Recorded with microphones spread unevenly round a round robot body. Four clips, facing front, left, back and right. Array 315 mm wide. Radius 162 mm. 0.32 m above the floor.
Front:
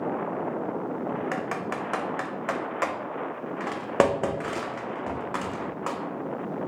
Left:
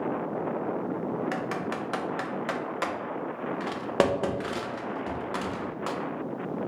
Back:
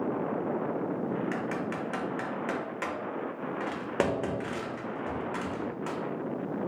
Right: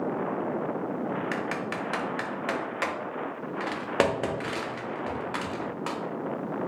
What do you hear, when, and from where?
1.3 s typing on a keyboard: 10° left, 0.6 m